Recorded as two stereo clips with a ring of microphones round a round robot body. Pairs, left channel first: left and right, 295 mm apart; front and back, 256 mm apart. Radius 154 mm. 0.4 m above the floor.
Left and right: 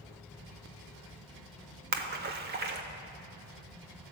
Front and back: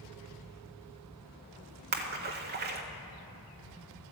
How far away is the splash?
About 0.8 m.